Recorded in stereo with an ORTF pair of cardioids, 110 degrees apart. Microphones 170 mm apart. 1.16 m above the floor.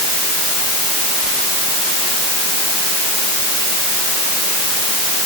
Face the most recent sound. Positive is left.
No sound to turn to.